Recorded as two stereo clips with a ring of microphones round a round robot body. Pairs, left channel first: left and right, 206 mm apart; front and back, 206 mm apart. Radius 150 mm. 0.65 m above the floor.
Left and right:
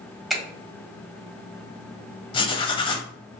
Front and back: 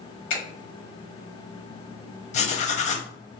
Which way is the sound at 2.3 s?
35° left.